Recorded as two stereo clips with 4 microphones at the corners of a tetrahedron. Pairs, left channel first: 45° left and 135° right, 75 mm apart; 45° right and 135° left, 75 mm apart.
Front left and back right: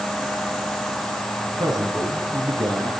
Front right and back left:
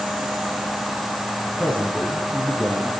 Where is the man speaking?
115° right, 8 m.